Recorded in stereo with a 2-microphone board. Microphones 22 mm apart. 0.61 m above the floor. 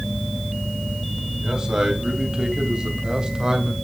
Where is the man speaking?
35° right (ahead or behind), 3 m; by 3.7 s 30° right (ahead or behind), 1.8 m.